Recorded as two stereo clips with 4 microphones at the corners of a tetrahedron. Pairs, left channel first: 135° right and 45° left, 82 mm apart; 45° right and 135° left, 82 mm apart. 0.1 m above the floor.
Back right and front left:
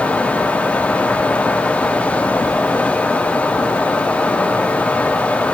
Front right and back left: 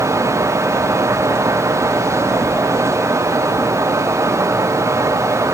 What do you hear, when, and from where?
Only background noise.